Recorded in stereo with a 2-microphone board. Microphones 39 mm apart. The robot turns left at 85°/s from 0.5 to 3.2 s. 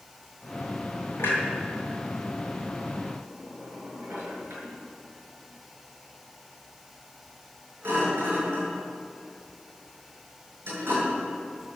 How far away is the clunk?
About 7 m.